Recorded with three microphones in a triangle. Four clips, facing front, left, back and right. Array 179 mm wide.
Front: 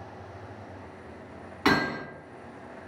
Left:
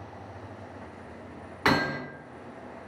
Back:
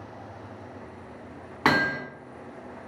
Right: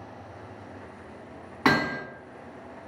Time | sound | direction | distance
1.6 | hammering | 155° right | 2 m